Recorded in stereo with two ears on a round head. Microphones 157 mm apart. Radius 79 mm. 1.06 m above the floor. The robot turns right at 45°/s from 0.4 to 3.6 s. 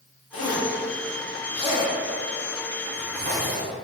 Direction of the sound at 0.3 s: 90° left.